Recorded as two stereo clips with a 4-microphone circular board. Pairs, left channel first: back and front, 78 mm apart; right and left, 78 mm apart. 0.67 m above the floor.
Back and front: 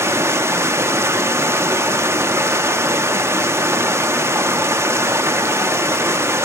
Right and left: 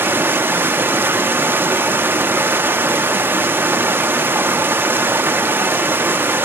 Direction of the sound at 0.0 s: 40° left.